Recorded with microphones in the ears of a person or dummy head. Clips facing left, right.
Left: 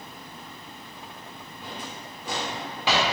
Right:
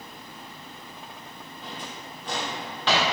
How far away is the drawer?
About 0.6 m.